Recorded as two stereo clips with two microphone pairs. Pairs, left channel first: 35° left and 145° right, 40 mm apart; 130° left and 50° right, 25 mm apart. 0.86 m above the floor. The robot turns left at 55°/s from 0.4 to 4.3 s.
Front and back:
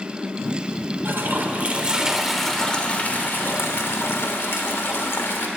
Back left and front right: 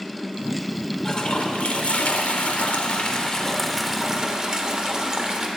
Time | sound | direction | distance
1.1 | a toilet flushing | 165° right | 1.1 m